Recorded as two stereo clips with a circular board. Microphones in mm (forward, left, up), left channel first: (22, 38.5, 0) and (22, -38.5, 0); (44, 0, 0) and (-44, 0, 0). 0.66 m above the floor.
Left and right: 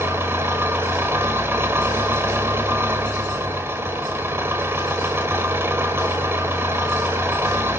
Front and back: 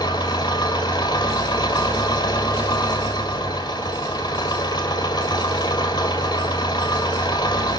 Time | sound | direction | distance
0.0 | an engine running | 35° right | 2.0 m